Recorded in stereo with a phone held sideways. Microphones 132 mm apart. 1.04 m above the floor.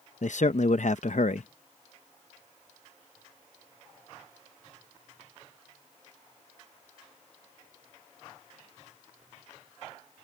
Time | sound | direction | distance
0.2 | a man speaking | 65° left (ahead or behind) | ?